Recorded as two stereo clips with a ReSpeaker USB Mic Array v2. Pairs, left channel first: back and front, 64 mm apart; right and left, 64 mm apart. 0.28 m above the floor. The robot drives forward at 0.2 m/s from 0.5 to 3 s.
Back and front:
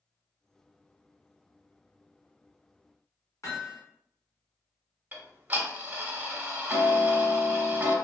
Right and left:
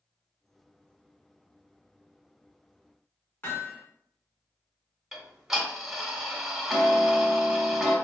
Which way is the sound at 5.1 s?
15° left.